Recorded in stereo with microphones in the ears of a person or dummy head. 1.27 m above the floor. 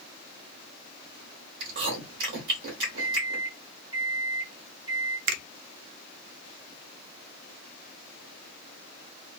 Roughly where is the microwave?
Right.